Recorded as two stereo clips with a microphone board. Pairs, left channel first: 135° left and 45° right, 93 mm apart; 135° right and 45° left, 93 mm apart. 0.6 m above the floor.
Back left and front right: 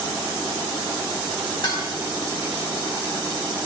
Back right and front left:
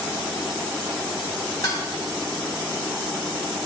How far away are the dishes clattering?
About 4.5 m.